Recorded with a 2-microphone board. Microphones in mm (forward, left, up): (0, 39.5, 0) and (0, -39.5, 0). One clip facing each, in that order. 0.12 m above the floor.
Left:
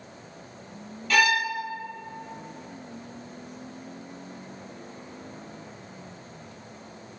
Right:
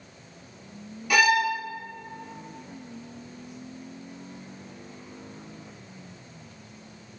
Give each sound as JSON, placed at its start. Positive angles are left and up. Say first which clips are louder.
{"t": 1.1, "sound": "a violin", "louder": "right 2 dB", "side_deg": -15, "distance_m": 1.4}